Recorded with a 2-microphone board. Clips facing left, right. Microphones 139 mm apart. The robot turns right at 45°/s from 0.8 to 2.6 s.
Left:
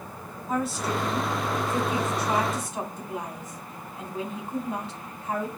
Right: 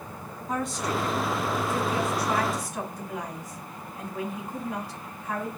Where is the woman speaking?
5° left (ahead or behind), 1.1 m; by 5.5 s 25° left (ahead or behind), 1.1 m.